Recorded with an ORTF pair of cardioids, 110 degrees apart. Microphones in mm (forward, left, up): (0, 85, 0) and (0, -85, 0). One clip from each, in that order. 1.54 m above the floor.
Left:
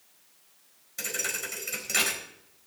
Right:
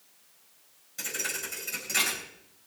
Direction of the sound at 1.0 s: 30° left.